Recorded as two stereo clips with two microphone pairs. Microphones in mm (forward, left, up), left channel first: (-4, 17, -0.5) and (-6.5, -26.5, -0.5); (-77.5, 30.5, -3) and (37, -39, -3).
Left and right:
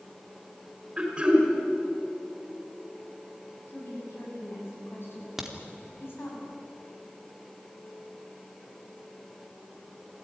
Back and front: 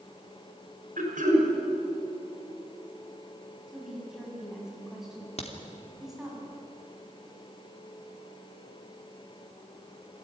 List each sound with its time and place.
1.0 s throat clearing: 25° right, 5.5 m
3.7 s a woman speaking: 55° left, 7.5 m
5.4 s a crack: 175° right, 2.5 m